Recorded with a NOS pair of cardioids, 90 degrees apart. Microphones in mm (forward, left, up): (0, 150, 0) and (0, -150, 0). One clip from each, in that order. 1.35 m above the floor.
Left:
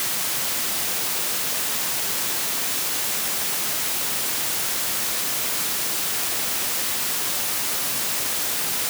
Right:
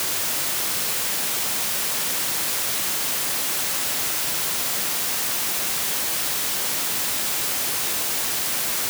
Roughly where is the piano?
I don't hear a piano.